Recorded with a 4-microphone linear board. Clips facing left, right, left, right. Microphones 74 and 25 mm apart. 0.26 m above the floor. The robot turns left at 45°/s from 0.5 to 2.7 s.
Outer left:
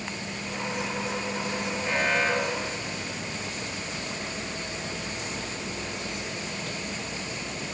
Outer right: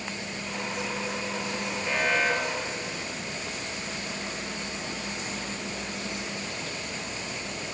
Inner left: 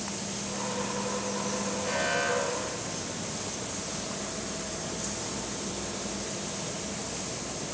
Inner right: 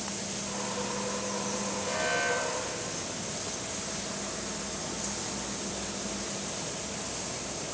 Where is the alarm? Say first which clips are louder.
Even, inner left 1 dB; 10° left, 6.5 m; by 3.2 s 25° right, 6.5 m.